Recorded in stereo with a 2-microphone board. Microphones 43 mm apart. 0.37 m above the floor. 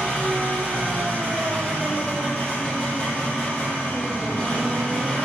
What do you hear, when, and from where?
0.0 s an engine running: 20° left (ahead or behind), 1.3 m